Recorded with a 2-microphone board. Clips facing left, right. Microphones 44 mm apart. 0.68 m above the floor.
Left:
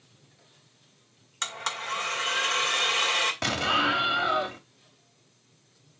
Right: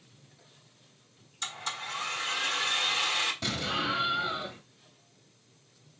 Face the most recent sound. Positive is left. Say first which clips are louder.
# left 6 dB
turn(degrees=70)  # may be behind; listen again after turning